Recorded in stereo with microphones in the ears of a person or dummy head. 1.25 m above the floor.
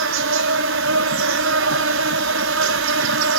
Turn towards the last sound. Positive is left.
turn(degrees=-75)  # may be behind; listen again after turning